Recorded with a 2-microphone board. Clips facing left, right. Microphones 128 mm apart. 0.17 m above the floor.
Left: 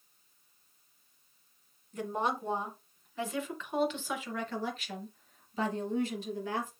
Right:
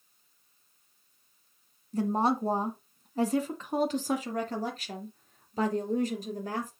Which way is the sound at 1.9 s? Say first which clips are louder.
Right 6 dB; 35° right (ahead or behind).